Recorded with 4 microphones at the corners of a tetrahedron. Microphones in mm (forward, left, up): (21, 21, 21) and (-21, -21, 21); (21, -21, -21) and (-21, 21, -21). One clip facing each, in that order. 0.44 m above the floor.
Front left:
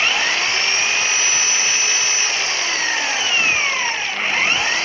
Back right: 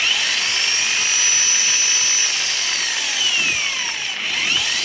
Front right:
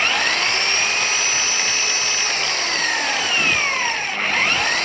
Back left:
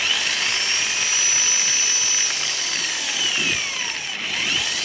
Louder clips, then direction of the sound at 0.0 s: Front left 3 dB, front right 5 dB; 10° right.